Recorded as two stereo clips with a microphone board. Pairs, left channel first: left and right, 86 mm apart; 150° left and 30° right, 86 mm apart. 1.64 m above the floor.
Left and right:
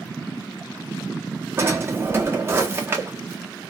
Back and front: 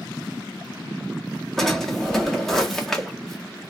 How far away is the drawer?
About 0.9 m.